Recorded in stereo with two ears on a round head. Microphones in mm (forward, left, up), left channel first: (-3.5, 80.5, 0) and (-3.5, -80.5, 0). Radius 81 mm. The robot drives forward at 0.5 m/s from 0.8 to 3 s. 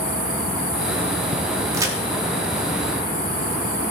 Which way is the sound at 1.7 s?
20° right (ahead or behind).